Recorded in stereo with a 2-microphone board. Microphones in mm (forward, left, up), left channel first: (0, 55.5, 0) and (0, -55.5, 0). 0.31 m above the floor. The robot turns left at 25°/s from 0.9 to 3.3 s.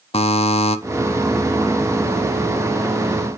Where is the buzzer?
65° left (ahead or behind), 0.6 m.